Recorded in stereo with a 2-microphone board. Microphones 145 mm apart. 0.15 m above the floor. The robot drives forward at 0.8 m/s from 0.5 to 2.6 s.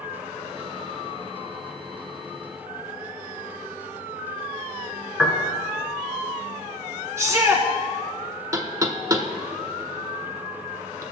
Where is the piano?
5° right (ahead or behind), 1.7 m.